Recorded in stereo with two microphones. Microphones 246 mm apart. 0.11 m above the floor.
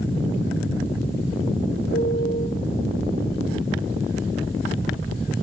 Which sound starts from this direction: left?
A piano, at 1.9 s.